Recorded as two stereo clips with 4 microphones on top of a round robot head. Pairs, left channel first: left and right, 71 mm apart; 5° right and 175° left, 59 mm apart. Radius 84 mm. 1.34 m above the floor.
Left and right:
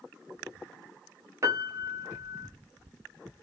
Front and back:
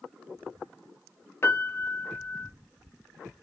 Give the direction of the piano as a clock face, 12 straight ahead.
1 o'clock.